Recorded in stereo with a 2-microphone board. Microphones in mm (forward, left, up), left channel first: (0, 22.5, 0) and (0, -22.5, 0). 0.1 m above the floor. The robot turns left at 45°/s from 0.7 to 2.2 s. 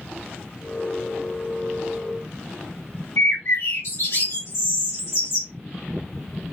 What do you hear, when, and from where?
3.2 s a bird: 75° left (ahead or behind), 2.5 m